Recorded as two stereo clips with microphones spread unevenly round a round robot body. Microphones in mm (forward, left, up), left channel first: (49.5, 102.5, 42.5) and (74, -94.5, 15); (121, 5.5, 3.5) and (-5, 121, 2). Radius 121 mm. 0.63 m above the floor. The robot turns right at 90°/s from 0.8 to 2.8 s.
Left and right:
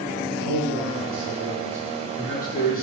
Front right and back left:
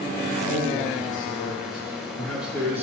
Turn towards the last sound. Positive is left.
turn(degrees=85)